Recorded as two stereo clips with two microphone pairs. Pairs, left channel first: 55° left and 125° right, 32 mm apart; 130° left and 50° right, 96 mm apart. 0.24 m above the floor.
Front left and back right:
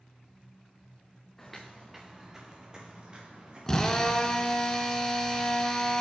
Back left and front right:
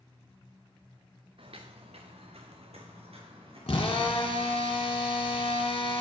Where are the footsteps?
25° right, 1.1 m; by 4.7 s 70° right, 3.5 m.